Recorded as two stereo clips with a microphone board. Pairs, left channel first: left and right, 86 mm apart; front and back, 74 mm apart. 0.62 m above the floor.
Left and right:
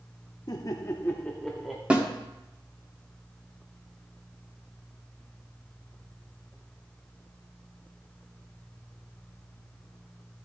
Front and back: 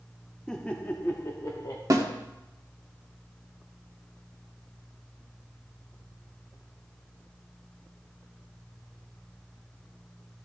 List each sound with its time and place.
0.5 s laughter: 80° left, 0.8 m; by 1.8 s 5° right, 0.9 m
1.9 s a snare drum: 160° right, 1.4 m